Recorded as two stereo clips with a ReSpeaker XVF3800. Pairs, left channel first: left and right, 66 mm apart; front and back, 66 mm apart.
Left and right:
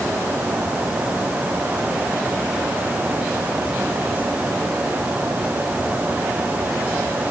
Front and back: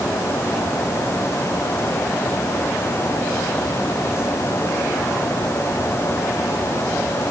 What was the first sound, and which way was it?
Only background noise.